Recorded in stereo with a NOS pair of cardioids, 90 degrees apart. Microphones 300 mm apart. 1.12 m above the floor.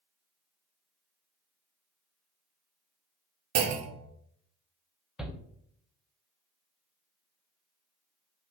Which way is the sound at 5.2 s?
Straight ahead.